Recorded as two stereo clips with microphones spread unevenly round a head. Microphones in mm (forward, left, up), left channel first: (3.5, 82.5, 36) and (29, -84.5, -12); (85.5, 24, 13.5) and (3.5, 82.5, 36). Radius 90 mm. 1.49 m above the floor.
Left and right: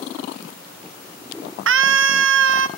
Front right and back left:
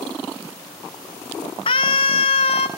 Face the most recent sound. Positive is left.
turn(degrees=-85)